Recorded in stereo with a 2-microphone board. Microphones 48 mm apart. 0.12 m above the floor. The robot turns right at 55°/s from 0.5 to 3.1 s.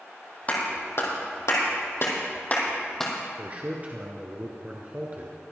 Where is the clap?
30° left (ahead or behind), 3 m; by 3.1 s 5° left (ahead or behind), 3 m.